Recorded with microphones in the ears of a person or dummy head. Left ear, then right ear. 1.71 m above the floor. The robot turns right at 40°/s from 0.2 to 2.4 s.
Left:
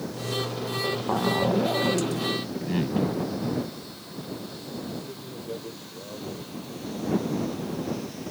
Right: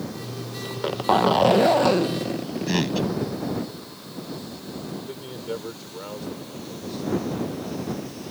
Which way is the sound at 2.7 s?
55° right (ahead or behind).